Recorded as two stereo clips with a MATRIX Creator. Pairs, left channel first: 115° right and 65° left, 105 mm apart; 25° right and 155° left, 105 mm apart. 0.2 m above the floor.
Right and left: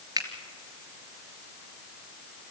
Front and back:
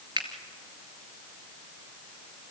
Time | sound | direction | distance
0.2 | a finger snap | 115° left | 2.5 m